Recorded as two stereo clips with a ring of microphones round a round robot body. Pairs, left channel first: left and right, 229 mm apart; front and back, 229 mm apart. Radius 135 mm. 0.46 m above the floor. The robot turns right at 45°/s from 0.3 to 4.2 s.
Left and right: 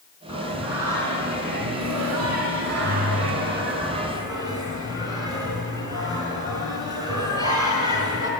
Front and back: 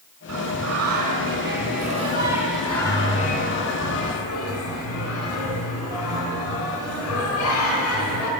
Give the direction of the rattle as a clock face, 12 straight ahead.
No rattle in this recording.